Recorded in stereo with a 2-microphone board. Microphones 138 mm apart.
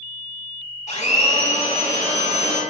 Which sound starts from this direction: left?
A blender, at 0.9 s.